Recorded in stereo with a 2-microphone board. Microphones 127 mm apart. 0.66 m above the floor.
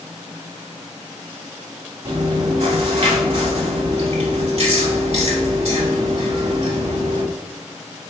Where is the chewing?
50° right (ahead or behind), 1.2 m.